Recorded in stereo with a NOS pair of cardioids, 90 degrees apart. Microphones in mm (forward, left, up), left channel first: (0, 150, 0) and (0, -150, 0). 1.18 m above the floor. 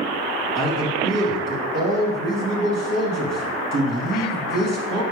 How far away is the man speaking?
About 3 m.